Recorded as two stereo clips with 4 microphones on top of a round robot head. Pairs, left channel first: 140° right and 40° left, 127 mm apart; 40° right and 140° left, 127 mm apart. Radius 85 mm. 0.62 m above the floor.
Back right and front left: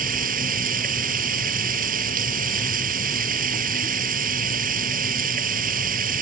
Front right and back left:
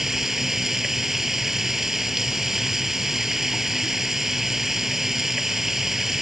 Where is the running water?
55° left.